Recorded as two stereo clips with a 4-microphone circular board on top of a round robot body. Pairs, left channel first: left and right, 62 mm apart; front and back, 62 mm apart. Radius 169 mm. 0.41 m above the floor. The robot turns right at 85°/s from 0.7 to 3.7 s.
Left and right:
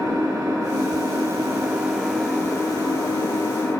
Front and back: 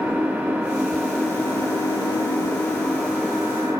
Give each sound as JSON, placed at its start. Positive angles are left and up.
{"t": 0.0, "sound": "an engine running", "azimuth_deg": -115, "distance_m": 4.0}